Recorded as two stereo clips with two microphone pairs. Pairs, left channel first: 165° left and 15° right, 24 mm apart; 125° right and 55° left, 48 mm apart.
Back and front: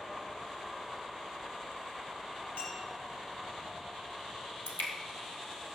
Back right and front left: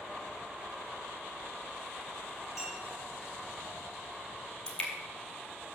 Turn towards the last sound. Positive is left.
turn(degrees=160)